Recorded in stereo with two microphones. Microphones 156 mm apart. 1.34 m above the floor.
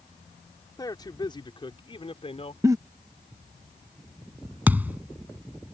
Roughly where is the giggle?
Centre.